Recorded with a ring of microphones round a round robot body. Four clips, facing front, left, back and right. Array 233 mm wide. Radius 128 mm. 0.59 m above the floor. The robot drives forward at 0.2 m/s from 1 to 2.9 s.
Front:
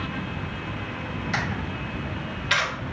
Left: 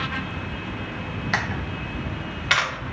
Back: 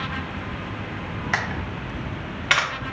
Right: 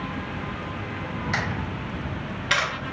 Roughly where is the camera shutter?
Behind left.